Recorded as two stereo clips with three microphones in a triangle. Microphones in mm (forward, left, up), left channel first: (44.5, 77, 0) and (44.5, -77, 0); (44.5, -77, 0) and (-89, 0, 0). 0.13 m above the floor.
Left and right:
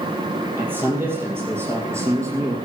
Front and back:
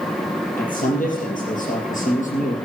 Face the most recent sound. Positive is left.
turn(degrees=-25)